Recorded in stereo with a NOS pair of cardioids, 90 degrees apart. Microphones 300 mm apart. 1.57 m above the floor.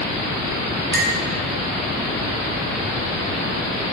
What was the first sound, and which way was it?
A clink, 35° right.